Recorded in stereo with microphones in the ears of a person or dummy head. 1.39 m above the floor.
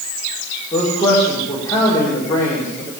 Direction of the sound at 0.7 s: 20° left (ahead or behind).